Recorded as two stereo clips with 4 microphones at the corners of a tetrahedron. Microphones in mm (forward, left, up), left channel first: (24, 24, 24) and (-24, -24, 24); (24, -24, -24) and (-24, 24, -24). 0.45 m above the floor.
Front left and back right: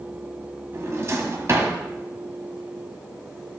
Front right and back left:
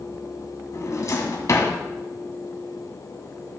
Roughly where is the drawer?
Right.